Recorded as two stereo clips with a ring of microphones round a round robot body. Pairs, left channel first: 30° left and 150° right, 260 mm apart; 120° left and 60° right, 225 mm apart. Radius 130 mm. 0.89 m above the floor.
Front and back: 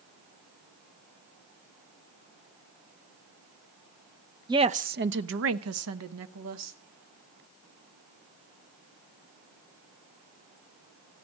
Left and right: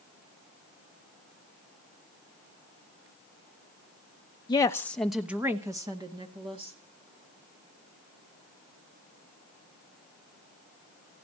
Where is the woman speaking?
160° left, 0.8 m; by 6.8 s 130° right, 2.0 m.